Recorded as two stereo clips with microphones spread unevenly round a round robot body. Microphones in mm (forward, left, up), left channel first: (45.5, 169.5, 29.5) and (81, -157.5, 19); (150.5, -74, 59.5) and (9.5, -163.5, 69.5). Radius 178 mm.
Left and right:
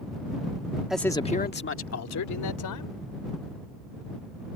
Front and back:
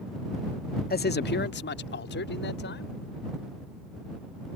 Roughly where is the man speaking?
Ahead.